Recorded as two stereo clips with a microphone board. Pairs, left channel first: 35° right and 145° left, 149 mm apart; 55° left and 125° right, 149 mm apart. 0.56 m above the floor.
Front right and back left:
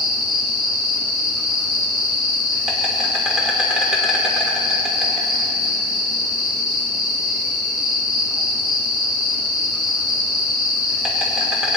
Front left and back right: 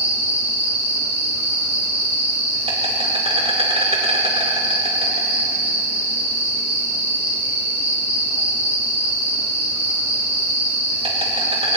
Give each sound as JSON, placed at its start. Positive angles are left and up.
{"t": 0.0, "sound": "an insect", "azimuth_deg": -130, "distance_m": 2.5}